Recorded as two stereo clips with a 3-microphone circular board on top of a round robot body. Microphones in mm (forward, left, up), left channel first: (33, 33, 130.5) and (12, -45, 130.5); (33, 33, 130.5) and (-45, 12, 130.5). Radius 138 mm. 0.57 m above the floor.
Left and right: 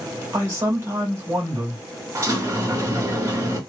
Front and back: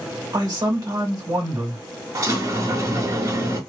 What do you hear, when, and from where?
0.3 s a man speaking: 155° right, 1.6 m
2.1 s a sliding door: 150° right, 1.7 m